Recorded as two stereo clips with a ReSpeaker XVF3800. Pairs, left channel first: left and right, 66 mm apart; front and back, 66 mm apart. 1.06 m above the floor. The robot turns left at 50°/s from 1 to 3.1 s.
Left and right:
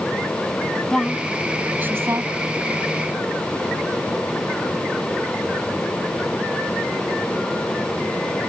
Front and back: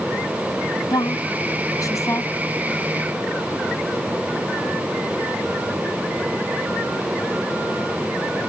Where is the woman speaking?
10° left; by 2.3 s 55° right.